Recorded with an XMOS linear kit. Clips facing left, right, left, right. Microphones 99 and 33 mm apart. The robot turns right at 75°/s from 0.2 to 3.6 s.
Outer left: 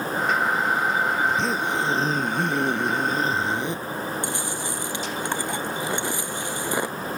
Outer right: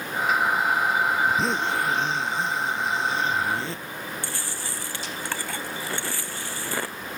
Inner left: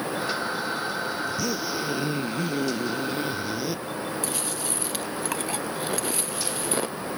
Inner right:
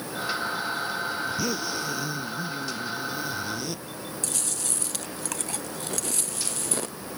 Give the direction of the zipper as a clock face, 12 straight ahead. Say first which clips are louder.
Even, inner left 1 dB; 12 o'clock.